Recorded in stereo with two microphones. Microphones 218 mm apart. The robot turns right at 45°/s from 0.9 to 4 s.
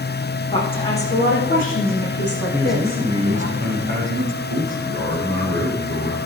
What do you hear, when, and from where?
0.5 s a woman speaking: 25° left, 7 m; by 3.5 s 140° left, 7 m
2.5 s a man speaking: 175° left, 6 m; by 6.2 s 120° right, 6 m